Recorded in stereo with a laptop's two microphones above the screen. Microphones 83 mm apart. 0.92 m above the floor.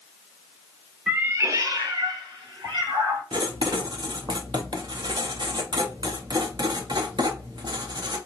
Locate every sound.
1.1 s a cat meowing: 15° right (ahead or behind), 0.5 m; by 3.2 s 70° right (ahead or behind), 1.8 m
3.3 s writing: 60° right (ahead or behind), 0.7 m